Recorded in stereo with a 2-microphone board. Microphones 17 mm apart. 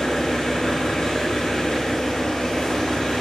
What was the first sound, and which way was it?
An engine running, 85° left.